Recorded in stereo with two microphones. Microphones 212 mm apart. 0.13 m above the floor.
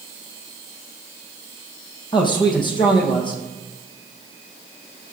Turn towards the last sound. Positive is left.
turn(degrees=20)  # may be behind; listen again after turning